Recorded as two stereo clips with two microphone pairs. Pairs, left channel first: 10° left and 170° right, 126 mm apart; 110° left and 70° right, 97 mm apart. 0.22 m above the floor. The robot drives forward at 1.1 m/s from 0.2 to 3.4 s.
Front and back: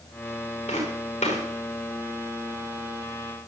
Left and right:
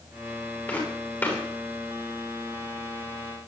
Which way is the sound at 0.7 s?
35° left.